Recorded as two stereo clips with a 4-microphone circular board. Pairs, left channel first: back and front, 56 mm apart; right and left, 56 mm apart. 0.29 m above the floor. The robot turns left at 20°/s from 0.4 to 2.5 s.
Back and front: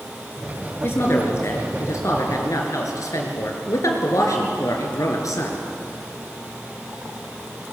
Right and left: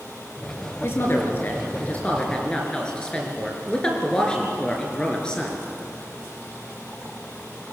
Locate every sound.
0.8 s a woman speaking: 135° right, 4 m; by 5.6 s 165° right, 4 m